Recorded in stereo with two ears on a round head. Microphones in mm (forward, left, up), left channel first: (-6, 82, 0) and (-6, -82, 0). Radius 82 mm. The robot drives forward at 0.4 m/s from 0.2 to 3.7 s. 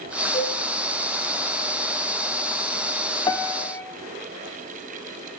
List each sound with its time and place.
0.3 s a cowbell: 35° left (ahead or behind), 2.5 m; by 0.6 s 30° left (ahead or behind), 2.5 m
3.3 s a piano: 15° left (ahead or behind), 0.7 m